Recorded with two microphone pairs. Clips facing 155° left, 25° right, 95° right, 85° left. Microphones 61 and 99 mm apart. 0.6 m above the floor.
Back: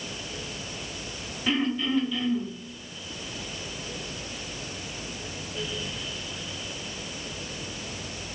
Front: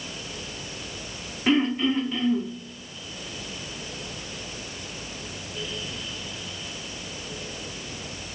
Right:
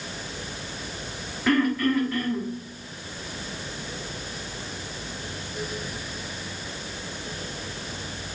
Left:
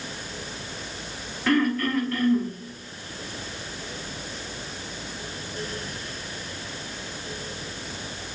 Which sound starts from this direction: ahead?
Throat clearing, at 1.5 s.